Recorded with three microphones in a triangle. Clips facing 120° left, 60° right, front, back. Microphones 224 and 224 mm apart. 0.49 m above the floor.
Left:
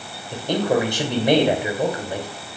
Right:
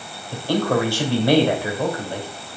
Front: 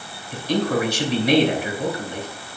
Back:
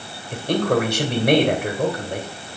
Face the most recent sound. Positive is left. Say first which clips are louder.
# even, back 2 dB
turn(degrees=-170)